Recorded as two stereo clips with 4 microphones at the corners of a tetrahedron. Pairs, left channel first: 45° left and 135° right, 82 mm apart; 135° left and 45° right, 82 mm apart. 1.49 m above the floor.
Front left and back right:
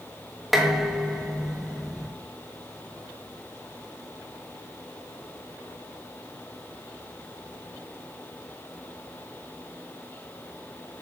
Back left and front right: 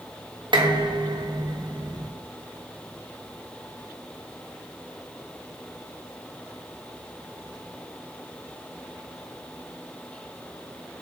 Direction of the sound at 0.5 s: 50° right.